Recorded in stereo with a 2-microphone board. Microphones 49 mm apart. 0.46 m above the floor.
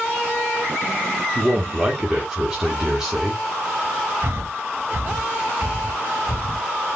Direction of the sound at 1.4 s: 10° right (ahead or behind).